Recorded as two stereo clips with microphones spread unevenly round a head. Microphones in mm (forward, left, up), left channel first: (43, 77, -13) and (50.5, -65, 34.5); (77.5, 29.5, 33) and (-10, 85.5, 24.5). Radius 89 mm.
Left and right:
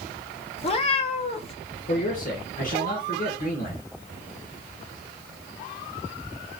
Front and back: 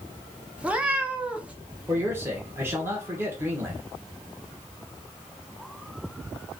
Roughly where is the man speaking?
Left.